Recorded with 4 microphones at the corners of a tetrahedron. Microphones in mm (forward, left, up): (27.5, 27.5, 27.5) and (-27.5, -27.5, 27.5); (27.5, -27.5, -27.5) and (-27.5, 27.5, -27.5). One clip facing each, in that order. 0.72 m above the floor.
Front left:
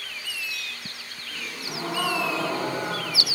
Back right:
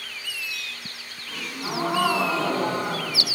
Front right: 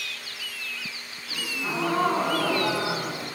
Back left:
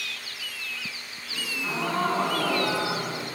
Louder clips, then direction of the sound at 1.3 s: Back right 5 dB, front right 1 dB; 125° right.